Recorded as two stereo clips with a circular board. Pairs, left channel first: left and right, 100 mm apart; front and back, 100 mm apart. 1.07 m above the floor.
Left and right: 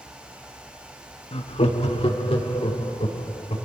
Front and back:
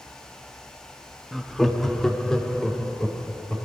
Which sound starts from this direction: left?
Laughter, at 1.3 s.